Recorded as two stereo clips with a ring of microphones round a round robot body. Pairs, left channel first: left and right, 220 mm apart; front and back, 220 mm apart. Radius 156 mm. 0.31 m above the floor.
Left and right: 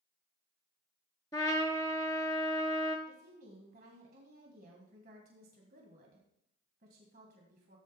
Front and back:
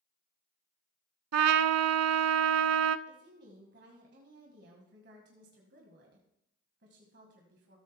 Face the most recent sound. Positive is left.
turn(degrees=-140)